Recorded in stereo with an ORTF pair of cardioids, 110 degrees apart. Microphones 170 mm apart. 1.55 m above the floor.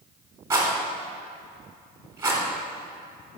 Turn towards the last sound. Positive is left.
turn(degrees=-15)